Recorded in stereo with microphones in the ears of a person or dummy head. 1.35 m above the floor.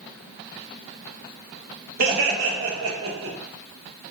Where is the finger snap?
I don't hear a finger snap.